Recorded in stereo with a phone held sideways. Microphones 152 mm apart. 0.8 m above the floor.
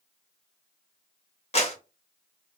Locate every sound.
1.5 s a clap: 45° left (ahead or behind), 0.9 m